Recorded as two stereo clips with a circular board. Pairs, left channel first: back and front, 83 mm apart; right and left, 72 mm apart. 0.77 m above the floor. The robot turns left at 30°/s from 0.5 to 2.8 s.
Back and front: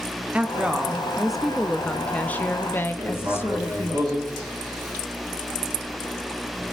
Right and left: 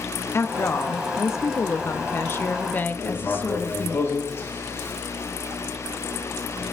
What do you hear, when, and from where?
0.3 s a woman speaking: 65° right, 0.7 m; by 4.0 s 135° right, 0.7 m
3.0 s writing: 35° right, 3.5 m